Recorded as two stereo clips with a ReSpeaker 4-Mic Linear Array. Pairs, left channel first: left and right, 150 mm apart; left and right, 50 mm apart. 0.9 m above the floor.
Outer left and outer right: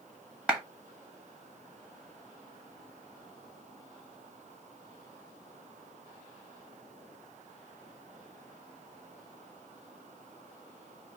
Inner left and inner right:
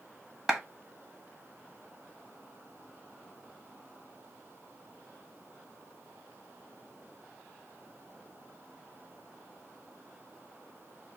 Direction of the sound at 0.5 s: 5° right (ahead or behind).